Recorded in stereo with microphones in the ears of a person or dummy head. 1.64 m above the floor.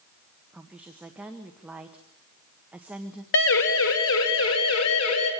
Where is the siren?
60° left (ahead or behind), 3 m; by 5.3 s 85° left, 5.5 m.